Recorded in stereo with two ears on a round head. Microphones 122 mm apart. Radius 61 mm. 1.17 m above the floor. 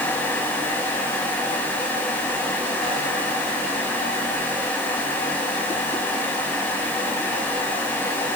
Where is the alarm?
I don't hear an alarm.